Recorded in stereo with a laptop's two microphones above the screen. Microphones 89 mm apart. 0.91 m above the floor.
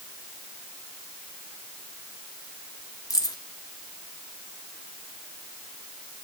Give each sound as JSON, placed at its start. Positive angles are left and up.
{"t": 3.1, "sound": "keys jangling", "side_deg": 45, "distance_m": 1.2}